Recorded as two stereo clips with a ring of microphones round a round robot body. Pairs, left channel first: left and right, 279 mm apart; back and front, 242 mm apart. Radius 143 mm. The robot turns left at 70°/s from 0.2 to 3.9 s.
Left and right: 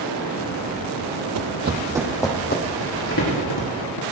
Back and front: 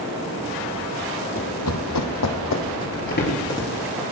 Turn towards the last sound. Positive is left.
turn(degrees=85)